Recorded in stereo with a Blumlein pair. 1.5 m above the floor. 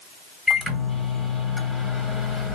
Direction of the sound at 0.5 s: Straight ahead.